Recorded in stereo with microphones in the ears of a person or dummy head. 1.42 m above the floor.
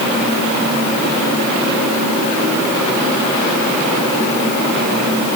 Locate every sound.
Only background noise.